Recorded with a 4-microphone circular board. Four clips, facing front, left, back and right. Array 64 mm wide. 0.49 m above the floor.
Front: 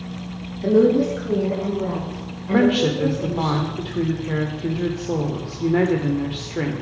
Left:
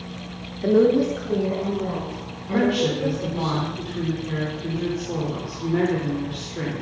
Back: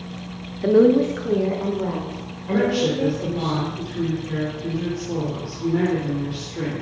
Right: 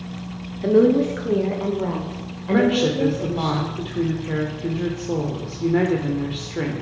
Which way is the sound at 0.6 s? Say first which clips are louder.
Right 1 dB, back 1 dB; 175° left.